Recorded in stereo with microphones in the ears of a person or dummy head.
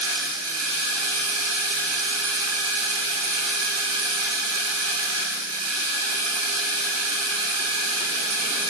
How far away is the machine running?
About 1.4 m.